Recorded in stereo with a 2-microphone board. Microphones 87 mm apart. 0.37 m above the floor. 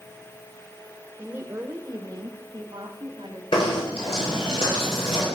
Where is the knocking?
75° left (ahead or behind), 7.5 m.